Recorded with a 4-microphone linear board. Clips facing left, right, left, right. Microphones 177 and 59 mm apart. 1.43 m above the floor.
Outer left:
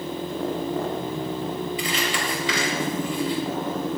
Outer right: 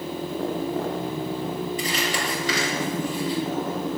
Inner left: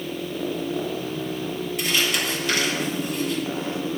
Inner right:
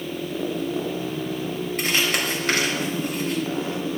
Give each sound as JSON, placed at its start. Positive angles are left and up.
{"t": 1.8, "sound": "crumpling", "side_deg": -45, "distance_m": 5.0}